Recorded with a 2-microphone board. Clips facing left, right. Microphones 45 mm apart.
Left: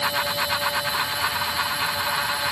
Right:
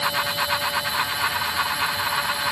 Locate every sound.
Only background noise.